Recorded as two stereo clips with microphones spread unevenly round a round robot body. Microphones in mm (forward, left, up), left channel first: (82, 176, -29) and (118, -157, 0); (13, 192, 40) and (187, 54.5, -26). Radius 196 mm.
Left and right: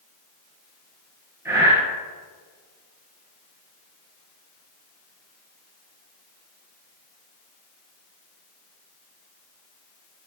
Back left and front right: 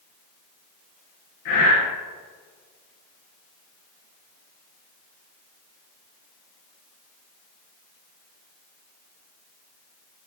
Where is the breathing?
165° right, 3 m.